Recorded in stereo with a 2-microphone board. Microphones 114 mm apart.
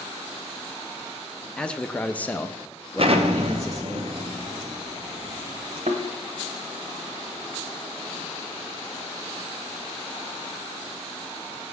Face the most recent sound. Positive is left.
turn(degrees=-70)  # may be behind; listen again after turning